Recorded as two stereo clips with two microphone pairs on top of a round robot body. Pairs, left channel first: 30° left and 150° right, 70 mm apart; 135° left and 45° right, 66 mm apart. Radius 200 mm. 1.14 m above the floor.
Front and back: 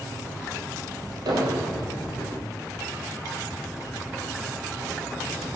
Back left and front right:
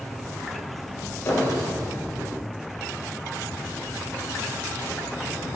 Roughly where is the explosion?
Behind.